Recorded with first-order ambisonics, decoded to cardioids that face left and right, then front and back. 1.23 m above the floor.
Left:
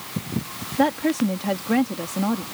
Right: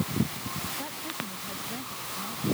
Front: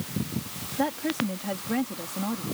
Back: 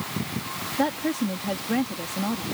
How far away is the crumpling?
I don't hear crumpling.